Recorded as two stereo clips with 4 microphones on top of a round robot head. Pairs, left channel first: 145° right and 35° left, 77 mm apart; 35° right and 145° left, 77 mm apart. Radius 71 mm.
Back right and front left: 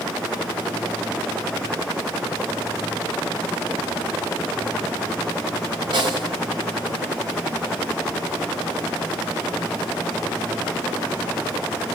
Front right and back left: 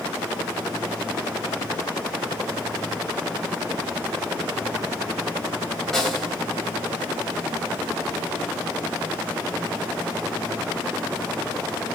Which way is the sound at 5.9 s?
50° left.